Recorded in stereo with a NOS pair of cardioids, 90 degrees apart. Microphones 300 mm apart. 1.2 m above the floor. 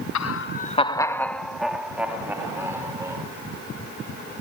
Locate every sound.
0.1 s laughter: 70° left, 0.7 m; by 3.2 s 10° right, 4 m